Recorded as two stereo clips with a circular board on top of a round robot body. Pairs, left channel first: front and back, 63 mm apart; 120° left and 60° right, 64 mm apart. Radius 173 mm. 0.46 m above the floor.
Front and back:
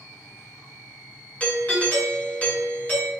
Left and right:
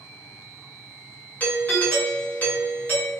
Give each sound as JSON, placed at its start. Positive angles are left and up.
{"t": 1.4, "sound": "a doorbell", "azimuth_deg": 60, "distance_m": 1.8}